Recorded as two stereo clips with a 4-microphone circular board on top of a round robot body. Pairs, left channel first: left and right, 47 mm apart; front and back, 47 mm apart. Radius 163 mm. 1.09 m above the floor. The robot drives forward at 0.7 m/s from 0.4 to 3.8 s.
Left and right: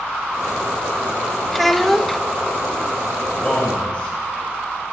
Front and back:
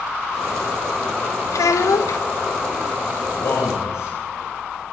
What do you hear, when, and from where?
1.5 s a child speaking: straight ahead, 1.0 m
3.3 s a man speaking: 10° left, 5.5 m